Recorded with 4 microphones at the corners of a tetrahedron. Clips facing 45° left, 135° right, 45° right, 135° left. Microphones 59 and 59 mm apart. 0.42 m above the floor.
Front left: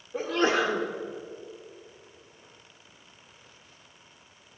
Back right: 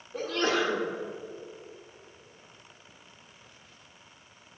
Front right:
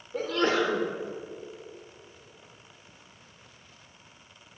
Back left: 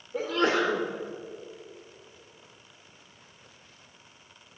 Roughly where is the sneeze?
Ahead left.